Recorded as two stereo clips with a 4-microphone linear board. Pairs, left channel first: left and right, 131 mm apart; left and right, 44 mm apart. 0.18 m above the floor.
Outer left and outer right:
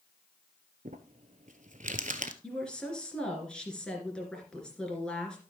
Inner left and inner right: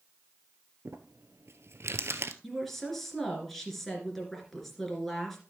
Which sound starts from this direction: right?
Crumpling, at 0.8 s.